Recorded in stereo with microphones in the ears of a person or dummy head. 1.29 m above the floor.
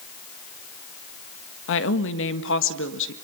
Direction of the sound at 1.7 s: 70° left (ahead or behind).